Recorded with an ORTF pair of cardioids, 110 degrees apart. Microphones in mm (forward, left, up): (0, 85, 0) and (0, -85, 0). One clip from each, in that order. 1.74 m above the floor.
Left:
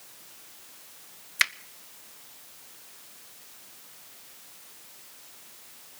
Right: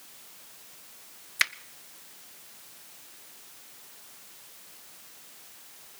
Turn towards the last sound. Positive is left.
turn(degrees=5)